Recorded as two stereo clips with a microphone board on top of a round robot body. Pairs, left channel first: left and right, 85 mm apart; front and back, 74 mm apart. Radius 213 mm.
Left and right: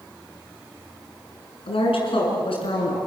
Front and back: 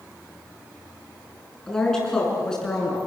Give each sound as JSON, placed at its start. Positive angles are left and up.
{"t": 1.7, "sound": "a woman speaking", "azimuth_deg": 85, "distance_m": 7.5}